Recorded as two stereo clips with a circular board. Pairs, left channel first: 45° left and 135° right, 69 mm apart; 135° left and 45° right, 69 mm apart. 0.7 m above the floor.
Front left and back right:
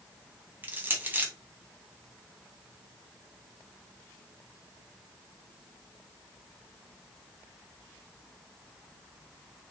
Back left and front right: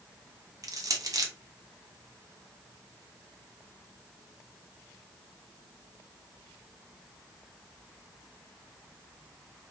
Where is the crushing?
75° right, 0.5 m.